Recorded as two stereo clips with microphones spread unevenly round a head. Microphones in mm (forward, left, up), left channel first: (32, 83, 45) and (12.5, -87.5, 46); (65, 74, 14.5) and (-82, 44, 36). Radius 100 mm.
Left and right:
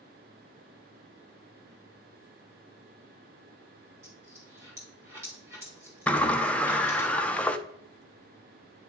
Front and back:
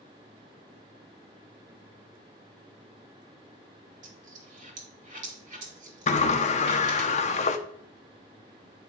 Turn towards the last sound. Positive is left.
turn(degrees=0)